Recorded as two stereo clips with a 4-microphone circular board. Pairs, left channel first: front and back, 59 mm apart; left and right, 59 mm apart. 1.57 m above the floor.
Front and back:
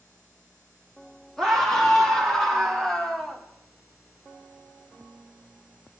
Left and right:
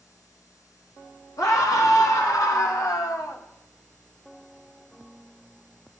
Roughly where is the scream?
Left.